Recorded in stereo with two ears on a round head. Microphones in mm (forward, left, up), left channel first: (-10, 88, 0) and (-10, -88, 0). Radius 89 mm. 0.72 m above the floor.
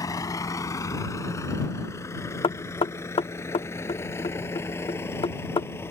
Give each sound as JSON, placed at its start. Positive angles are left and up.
{"t": 0.0, "sound": "a vehicle", "side_deg": 20}
{"t": 2.4, "sound": "knocking", "side_deg": 25}